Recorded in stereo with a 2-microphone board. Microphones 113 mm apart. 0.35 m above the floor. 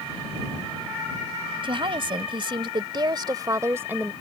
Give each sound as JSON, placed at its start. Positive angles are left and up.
{"t": 1.6, "sound": "a woman speaking", "side_deg": -50}